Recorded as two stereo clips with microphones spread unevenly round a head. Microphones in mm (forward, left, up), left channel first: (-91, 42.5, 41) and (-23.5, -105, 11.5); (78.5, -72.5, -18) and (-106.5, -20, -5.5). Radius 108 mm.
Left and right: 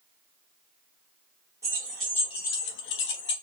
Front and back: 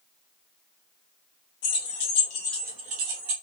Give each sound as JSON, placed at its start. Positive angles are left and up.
{"t": 1.6, "sound": "keys jangling", "azimuth_deg": 10, "distance_m": 0.9}